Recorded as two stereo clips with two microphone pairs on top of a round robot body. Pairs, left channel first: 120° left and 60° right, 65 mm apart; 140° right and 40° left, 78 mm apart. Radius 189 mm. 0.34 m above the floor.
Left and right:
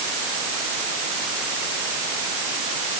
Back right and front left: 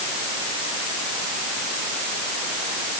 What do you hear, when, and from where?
Only background noise.